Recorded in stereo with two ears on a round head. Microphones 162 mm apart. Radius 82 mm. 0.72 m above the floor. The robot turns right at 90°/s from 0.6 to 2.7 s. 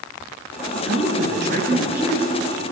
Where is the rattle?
I don't hear a rattle.